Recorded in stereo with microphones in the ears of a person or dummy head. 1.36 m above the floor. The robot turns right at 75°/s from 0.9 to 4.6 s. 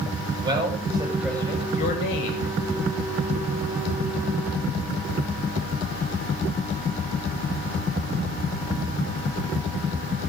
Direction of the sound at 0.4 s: 30° right.